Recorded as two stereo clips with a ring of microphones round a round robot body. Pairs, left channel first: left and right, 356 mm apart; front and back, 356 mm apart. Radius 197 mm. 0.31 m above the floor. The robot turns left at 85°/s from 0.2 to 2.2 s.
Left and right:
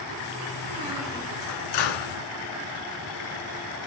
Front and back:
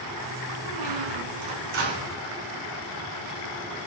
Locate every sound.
0.7 s a squeak: 145° right, 2.5 m; by 2.2 s 85° left, 2.5 m